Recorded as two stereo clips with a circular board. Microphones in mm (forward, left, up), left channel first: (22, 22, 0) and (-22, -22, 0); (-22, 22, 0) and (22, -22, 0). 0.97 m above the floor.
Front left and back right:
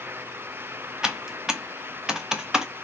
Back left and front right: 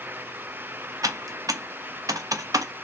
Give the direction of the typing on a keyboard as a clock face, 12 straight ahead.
2 o'clock.